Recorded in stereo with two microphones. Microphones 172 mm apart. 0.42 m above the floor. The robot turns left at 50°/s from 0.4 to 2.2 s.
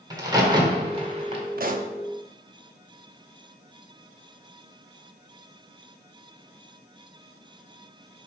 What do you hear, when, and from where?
0.1 s a crack: 20° right (ahead or behind), 1.3 m; by 1.4 s 35° right (ahead or behind), 1.3 m
1.6 s a pop: 60° right (ahead or behind), 0.5 m; by 1.9 s 40° right (ahead or behind), 0.5 m